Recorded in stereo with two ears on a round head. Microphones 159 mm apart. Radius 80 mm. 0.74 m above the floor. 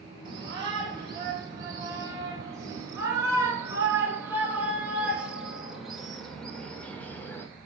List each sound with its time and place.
0.2 s a shout: 25° right (ahead or behind), 5.5 m; by 7.5 s 15° left (ahead or behind), 2.5 m